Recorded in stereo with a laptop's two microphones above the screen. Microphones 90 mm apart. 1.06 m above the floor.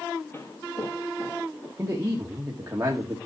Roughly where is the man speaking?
Right.